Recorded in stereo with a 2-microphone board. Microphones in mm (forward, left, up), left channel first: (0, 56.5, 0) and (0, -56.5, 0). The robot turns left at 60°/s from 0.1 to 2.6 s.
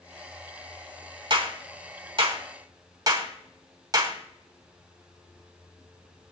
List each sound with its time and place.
1.3 s a clap: 45° right (ahead or behind), 1.8 m; by 4.2 s 35° right (ahead or behind), 1.8 m